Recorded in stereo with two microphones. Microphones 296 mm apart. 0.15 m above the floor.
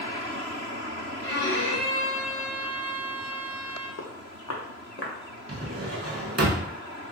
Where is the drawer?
55° right (ahead or behind), 0.5 m.